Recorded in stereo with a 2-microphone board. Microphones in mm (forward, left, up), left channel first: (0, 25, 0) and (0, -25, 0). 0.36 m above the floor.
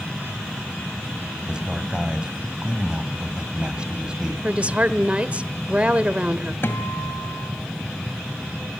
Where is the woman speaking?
25° right (ahead or behind), 1.2 m.